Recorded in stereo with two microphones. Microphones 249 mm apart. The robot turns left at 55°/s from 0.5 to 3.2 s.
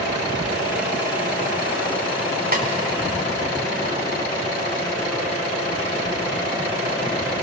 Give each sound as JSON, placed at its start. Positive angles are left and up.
{"t": 2.5, "sound": "a snare drum", "side_deg": -40, "distance_m": 1.8}